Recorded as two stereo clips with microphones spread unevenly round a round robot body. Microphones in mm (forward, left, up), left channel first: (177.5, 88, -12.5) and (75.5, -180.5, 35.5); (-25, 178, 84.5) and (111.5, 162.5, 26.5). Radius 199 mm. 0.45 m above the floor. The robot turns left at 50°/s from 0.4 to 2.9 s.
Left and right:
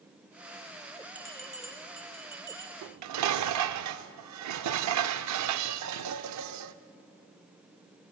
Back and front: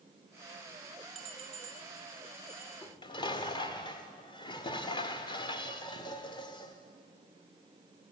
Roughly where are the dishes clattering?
Right.